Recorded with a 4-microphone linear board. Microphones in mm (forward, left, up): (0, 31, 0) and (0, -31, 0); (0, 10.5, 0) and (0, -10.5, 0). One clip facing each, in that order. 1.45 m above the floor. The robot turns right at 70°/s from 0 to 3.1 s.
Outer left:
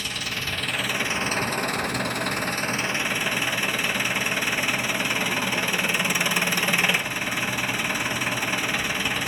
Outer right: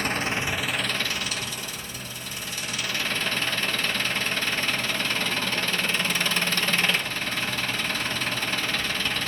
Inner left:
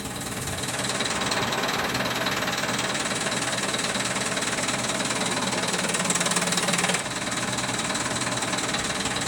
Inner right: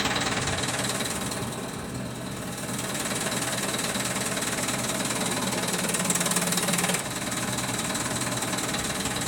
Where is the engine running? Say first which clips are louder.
Outer right 5 dB, inner right 6 dB; 55° right, 1.0 m; by 9.3 s 165° left, 1.0 m.